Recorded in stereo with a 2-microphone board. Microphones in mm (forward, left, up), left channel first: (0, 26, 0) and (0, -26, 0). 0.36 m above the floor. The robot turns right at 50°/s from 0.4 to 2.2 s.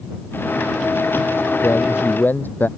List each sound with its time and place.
1.6 s a man speaking: 65° left (ahead or behind); by 2.7 s 35° left (ahead or behind)